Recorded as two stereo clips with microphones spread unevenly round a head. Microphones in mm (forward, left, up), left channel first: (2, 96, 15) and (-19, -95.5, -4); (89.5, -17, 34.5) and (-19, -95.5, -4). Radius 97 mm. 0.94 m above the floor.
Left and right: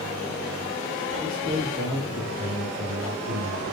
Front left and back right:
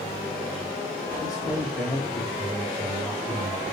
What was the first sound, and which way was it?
A man speaking, 45° right.